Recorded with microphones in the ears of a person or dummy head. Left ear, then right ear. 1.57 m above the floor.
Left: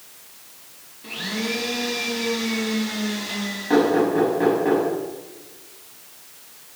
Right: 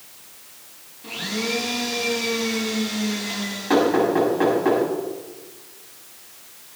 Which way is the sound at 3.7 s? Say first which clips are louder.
Even; 20° right (ahead or behind).